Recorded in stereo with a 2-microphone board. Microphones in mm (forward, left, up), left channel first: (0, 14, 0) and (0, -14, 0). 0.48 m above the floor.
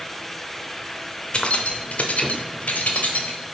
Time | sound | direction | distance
1.3 | keys jangling | 40° left (ahead or behind) | 0.8 m